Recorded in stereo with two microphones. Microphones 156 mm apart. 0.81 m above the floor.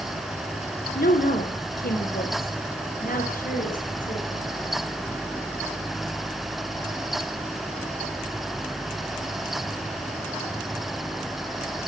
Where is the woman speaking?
75° left (ahead or behind), 2.5 m; by 4.5 s 60° left (ahead or behind), 4.5 m.